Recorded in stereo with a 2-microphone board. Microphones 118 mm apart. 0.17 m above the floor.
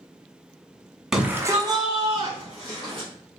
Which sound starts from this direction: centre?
A shout, at 1.1 s.